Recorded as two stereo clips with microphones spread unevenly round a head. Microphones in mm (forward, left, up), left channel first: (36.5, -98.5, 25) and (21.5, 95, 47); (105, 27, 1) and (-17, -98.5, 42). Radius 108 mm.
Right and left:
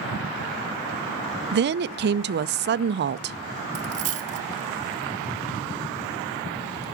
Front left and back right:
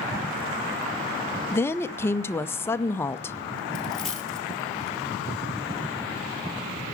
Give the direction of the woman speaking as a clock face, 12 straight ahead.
9 o'clock.